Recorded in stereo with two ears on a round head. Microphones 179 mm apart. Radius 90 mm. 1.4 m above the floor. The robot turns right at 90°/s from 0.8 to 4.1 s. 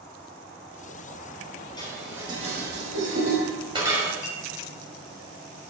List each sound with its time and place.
1.8 s dishes clattering: 25° left (ahead or behind), 5 m; by 4.1 s 5° left (ahead or behind), 5 m
4.2 s a clink: 40° left (ahead or behind), 4.5 m